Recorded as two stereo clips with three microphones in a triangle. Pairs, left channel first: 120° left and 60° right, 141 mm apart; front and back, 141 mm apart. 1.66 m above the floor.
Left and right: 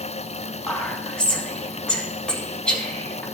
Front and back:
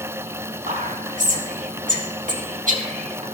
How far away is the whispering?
About 2.5 m.